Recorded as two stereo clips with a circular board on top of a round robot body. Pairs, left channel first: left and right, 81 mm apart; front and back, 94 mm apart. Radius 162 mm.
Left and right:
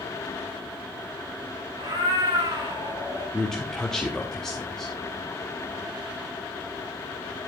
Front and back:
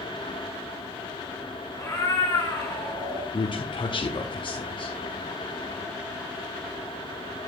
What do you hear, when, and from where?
1.8 s a cat meowing: 65° right, 3.5 m
3.3 s a man speaking: 10° left, 1.5 m